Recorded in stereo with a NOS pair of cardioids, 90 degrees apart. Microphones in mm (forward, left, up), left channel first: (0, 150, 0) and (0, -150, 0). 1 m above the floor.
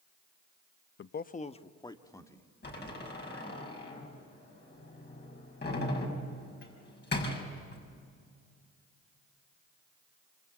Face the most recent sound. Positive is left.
turn(degrees=35)